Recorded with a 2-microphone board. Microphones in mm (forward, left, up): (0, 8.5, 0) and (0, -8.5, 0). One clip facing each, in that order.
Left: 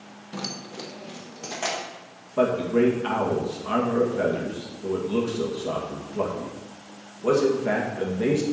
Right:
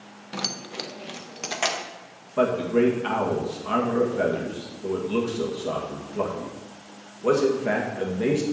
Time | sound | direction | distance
0.3 | keys jangling | 40° right (ahead or behind) | 0.6 m
2.4 | a man speaking | 45° right (ahead or behind) | 2 m